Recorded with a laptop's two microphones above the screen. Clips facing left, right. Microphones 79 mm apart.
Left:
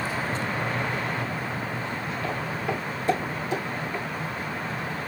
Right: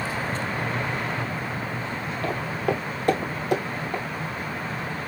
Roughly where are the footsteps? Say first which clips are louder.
Right 5 dB; right.